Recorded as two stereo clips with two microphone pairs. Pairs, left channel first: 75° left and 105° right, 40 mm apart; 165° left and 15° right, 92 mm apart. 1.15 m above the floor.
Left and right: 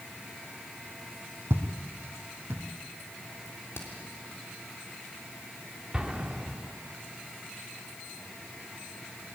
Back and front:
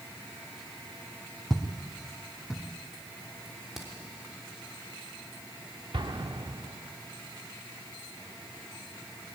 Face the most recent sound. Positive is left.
turn(degrees=-40)